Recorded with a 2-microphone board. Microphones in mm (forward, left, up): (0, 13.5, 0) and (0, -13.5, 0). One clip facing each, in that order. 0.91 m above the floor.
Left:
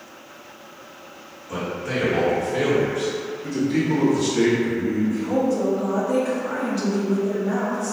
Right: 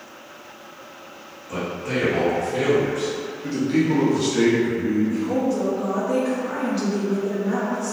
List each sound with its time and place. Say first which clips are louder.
1.5 s a man speaking: even; centre (ahead or behind), 1.5 m
3.4 s a man speaking: right 2 dB; 40° right (ahead or behind), 0.9 m
5.1 s a woman speaking: left 1 dB; 10° right (ahead or behind), 1.0 m